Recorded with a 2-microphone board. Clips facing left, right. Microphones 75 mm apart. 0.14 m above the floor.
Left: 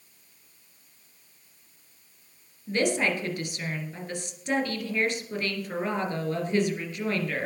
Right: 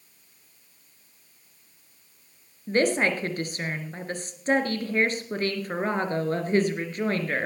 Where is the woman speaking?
40° right (ahead or behind), 2.5 m.